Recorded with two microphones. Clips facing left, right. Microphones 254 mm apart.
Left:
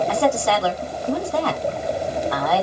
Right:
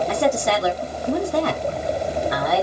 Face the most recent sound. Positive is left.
turn(degrees=-20)  # may be behind; listen again after turning